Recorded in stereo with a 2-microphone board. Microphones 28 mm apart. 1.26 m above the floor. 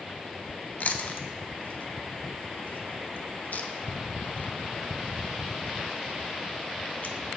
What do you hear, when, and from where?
0.8 s chewing: 60° left (ahead or behind), 0.5 m